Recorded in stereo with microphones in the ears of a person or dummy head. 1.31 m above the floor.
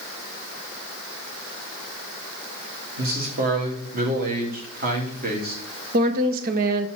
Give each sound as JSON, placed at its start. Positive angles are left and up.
{"t": 3.0, "sound": "a man speaking", "side_deg": -45, "distance_m": 1.9}
{"t": 5.9, "sound": "a woman speaking", "side_deg": -45, "distance_m": 1.0}